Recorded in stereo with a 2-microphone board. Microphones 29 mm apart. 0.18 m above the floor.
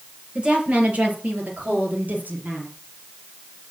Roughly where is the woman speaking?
Right.